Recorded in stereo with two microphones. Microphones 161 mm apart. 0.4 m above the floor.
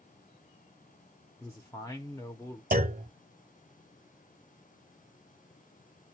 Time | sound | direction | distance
1.4 | a man speaking | 20° left (ahead or behind) | 0.8 m
2.7 | a clunk | 65° right (ahead or behind) | 0.6 m